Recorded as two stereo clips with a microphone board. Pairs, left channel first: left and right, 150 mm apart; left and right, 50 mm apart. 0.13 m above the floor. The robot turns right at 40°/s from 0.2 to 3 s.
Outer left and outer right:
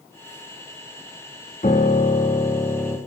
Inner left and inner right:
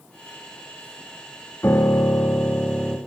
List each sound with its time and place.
1.6 s a piano: 120° left, 1.0 m; by 3.0 s 175° left, 1.0 m